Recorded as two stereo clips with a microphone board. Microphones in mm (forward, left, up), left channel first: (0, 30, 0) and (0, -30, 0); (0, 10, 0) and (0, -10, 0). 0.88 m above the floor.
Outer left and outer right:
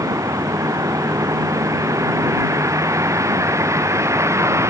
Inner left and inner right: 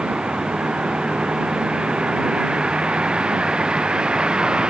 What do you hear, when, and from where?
0.0 s a vehicle: 65° right (ahead or behind); by 4.7 s 50° right (ahead or behind)